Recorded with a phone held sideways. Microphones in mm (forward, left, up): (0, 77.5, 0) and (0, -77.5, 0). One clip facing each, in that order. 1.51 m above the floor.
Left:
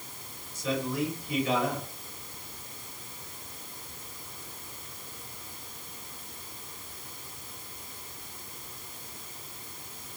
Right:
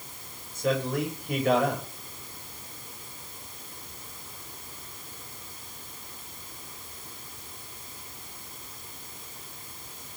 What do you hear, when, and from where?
0.6 s a man speaking: 60° right (ahead or behind), 8 m